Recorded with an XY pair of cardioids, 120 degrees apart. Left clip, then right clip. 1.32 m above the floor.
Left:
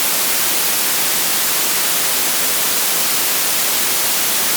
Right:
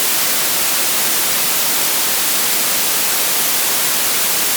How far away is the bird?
No bird in this recording.